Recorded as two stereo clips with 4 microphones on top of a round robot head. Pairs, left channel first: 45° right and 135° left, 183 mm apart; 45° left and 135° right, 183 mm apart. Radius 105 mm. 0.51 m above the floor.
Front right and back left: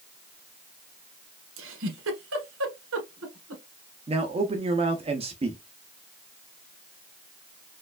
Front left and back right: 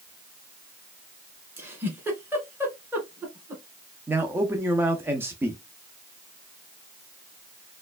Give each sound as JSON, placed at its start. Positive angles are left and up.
{"t": 1.6, "sound": "a giggle", "azimuth_deg": 145, "distance_m": 1.5}
{"t": 4.1, "sound": "a man speaking", "azimuth_deg": 155, "distance_m": 0.7}